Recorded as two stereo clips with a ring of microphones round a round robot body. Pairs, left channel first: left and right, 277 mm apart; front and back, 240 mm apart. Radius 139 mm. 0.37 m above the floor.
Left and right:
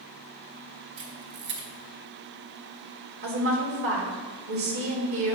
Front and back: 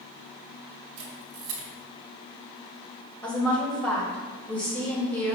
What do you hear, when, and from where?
1.0 s a camera shutter: 140° right, 2 m
3.2 s a woman speaking: 80° right, 1.9 m